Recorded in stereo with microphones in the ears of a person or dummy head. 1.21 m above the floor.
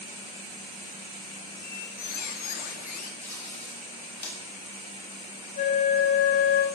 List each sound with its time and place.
1.6 s a squeak: 45° left (ahead or behind), 0.7 m
3.2 s tape being pulled: 15° left (ahead or behind), 1.8 m
5.6 s a flute: 45° left (ahead or behind), 0.7 m